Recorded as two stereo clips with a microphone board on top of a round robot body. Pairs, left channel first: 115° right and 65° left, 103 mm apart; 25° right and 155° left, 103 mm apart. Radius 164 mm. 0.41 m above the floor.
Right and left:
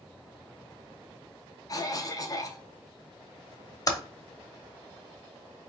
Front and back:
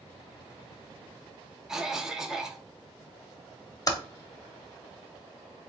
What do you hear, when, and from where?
1.7 s a cough: 120° right, 1.0 m
3.9 s typing on a keyboard: 70° right, 1.0 m